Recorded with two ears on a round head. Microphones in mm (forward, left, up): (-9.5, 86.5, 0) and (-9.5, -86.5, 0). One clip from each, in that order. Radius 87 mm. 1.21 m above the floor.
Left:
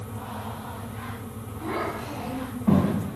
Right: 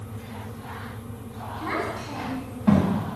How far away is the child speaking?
About 5 m.